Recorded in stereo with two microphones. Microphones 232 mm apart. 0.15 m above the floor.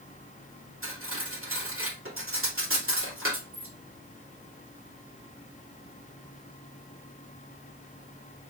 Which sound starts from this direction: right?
Cutlery clinking, at 0.8 s.